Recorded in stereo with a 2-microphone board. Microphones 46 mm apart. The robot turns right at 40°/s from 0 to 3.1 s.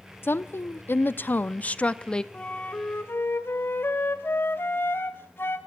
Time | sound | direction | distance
0.2 | a woman speaking | 80° left | 0.8 m
2.3 | a flute | 25° left | 2 m